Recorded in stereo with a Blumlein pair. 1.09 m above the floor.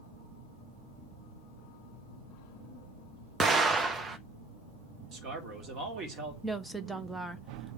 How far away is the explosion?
About 0.9 m.